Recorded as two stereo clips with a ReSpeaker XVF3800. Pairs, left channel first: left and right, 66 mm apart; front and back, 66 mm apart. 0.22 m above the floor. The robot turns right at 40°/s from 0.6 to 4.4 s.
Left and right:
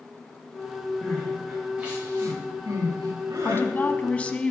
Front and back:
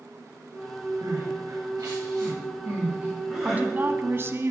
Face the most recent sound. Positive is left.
turn(degrees=160)